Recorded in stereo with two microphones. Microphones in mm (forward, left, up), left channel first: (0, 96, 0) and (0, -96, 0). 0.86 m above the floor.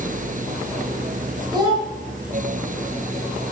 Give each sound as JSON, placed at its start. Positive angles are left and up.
{"t": 1.5, "sound": "a child speaking", "side_deg": -20, "distance_m": 3.0}